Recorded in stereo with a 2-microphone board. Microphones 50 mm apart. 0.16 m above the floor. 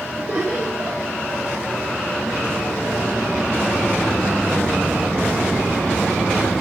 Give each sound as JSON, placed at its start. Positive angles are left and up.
{"t": 0.2, "sound": "laughter", "side_deg": -40, "distance_m": 4.5}